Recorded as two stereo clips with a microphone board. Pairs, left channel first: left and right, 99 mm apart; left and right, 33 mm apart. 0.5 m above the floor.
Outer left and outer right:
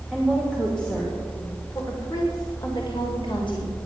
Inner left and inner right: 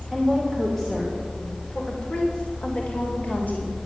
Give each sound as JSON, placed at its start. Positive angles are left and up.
{"t": 0.1, "sound": "a woman speaking", "side_deg": -5, "distance_m": 1.6}